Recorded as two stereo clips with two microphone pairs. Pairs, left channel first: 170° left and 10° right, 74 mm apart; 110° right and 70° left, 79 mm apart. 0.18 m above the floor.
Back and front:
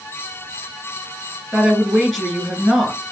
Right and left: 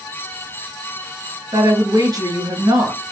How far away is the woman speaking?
About 2 m.